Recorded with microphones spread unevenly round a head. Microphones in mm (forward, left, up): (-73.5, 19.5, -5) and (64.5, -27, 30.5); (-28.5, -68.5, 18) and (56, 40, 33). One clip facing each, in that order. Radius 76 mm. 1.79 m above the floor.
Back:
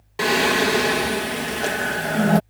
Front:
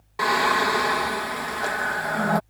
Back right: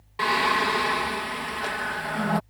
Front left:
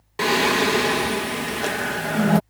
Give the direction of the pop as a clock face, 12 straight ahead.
I don't hear a pop.